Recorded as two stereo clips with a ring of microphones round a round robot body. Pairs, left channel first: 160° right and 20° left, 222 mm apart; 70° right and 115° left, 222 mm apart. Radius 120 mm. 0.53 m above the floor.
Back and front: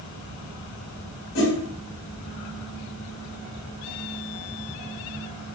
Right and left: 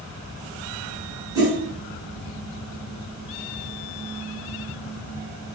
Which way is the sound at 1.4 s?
175° right.